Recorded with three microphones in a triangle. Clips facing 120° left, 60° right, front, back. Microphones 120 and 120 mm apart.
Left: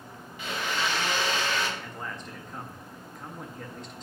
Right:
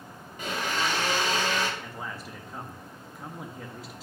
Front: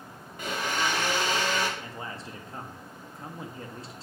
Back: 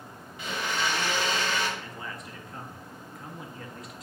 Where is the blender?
25° right, 0.9 m.